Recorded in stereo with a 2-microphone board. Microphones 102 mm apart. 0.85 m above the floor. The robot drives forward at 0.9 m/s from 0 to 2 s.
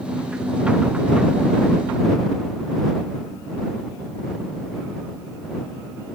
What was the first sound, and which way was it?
Only background noise.